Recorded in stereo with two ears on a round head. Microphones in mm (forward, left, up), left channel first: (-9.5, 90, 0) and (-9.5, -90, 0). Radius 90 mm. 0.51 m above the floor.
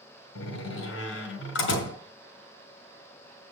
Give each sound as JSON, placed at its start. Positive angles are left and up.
{"t": 0.3, "sound": "a door slam", "side_deg": 75, "distance_m": 3.5}